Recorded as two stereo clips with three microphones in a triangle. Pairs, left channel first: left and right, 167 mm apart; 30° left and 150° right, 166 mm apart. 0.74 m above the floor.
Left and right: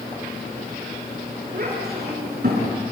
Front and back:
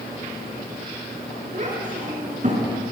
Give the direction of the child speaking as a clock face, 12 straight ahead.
4 o'clock.